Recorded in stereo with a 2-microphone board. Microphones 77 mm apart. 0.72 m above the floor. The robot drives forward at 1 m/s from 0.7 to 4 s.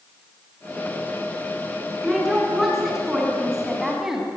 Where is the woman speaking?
5° right (ahead or behind), 7 m.